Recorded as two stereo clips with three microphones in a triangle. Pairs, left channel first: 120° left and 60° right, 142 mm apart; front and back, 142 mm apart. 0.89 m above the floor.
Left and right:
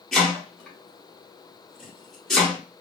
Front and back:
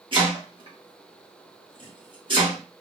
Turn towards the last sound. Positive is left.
turn(degrees=-155)